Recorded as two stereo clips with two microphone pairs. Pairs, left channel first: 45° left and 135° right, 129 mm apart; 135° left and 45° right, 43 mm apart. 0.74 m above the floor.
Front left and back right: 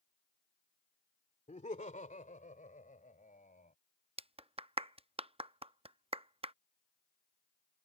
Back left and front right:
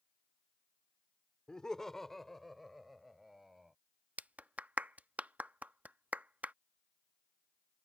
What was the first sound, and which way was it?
Laughter, 65° left.